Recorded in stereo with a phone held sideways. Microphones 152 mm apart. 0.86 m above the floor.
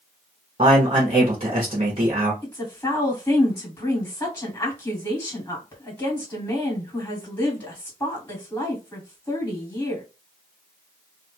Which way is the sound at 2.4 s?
15° left (ahead or behind).